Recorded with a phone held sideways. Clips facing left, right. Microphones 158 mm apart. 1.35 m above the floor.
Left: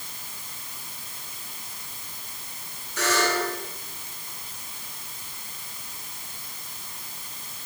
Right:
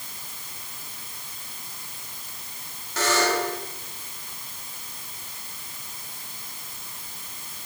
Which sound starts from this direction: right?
A buzzer, at 3.0 s.